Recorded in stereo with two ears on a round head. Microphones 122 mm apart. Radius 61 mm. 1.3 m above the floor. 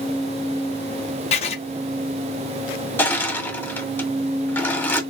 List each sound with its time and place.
1.3 s writing: 45° left (ahead or behind), 0.8 m
3.0 s crushing: 15° left (ahead or behind), 1.5 m